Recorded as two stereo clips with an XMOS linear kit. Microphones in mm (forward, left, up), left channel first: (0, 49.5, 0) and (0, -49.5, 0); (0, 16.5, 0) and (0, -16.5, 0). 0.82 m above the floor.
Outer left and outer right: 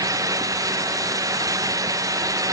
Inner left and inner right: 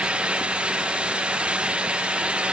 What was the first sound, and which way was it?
Only background noise.